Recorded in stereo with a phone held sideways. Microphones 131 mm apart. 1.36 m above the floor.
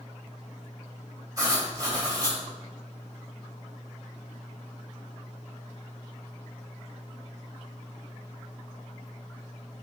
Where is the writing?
30° right (ahead or behind), 2 m.